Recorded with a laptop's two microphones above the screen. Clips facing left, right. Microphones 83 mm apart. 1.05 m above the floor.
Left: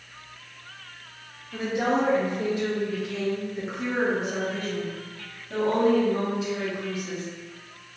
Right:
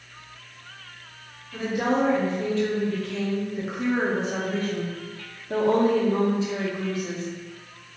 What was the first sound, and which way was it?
A woman speaking, 25° left (ahead or behind).